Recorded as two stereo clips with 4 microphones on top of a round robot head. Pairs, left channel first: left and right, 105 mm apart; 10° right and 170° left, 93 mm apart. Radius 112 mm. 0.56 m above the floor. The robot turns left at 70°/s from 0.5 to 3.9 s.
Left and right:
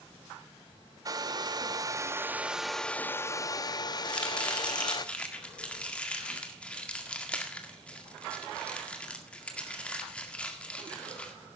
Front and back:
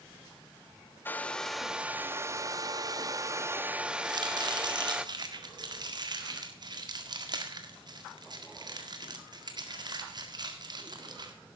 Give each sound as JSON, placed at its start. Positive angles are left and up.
{"t": 1.1, "sound": "a hair dryer", "azimuth_deg": -65, "distance_m": 0.9}
{"t": 4.0, "sound": "chopping", "azimuth_deg": 165, "distance_m": 1.9}